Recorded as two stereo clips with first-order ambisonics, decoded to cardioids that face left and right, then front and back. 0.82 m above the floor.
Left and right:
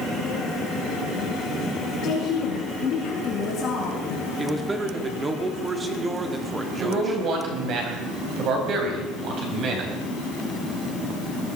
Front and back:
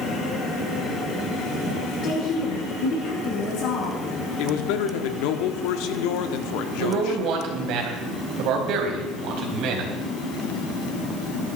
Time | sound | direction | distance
2.0 | a woman speaking | 40° left | 5.5 m
4.4 | a man speaking | 15° right | 1.6 m
6.8 | a man speaking | 140° right | 4 m